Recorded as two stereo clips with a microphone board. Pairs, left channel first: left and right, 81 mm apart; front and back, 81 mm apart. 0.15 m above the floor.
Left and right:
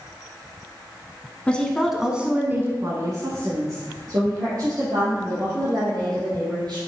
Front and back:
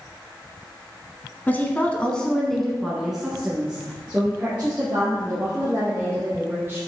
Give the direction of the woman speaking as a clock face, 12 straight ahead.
11 o'clock.